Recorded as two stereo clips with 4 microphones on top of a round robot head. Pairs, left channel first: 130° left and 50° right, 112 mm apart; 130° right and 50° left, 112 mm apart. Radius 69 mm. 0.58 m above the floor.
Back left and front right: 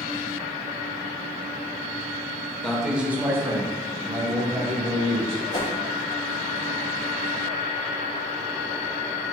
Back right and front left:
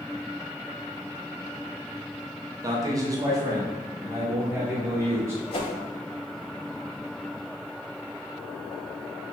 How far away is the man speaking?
About 0.8 m.